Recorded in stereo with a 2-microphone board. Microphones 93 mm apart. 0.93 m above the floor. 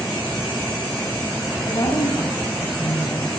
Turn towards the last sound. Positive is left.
turn(degrees=40)  # may be behind; listen again after turning